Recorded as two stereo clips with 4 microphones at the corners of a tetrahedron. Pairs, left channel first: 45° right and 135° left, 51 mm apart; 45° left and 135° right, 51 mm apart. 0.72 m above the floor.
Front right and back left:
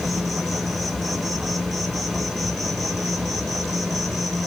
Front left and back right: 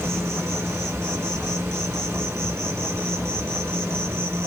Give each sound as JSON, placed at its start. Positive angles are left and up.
{"t": 0.0, "sound": "an insect", "azimuth_deg": -140, "distance_m": 1.0}